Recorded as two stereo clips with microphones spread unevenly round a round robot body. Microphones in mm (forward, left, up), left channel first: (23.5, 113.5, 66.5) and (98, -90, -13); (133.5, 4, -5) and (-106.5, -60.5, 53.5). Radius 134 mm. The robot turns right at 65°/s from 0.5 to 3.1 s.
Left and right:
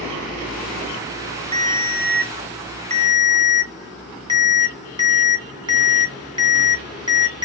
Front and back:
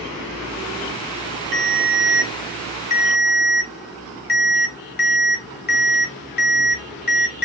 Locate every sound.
1.5 s a ringtone: 120° right, 1.5 m; by 7.5 s 15° right, 1.5 m